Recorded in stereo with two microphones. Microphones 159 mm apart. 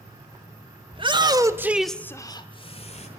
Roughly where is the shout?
Right.